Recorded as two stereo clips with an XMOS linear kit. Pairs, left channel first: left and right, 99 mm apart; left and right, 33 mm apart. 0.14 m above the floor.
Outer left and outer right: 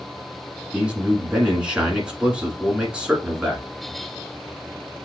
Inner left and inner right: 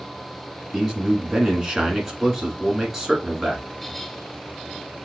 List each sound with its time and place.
0.7 s a man speaking: 10° right (ahead or behind), 1.4 m